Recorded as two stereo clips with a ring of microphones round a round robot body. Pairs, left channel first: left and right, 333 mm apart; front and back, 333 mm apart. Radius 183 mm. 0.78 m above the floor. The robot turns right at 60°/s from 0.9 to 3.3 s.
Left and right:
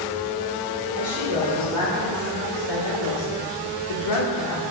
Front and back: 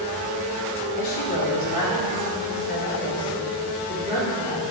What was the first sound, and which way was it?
A woman speaking, 35° right.